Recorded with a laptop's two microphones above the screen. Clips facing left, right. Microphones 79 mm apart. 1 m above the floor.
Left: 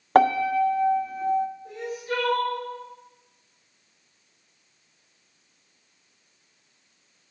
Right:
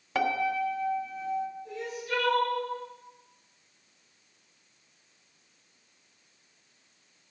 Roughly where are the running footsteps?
No running footsteps in this recording.